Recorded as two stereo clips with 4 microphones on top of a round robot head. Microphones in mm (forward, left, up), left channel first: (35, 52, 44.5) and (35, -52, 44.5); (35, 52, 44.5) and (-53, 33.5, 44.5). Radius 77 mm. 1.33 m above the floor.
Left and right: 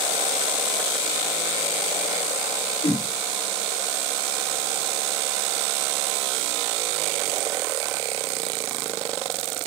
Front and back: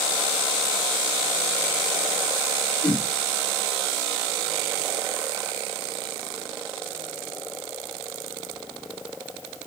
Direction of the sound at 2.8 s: 85° left.